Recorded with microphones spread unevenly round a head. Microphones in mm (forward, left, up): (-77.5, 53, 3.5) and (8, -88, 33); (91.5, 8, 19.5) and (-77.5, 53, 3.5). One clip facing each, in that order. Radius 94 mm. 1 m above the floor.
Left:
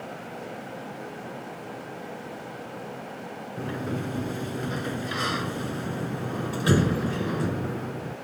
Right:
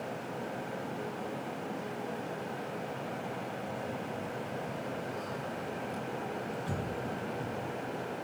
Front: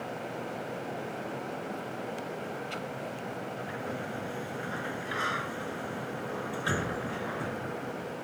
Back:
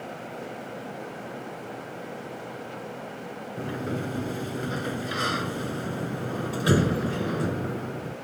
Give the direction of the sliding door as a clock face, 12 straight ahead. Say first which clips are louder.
Left 7 dB, back 6 dB; 8 o'clock.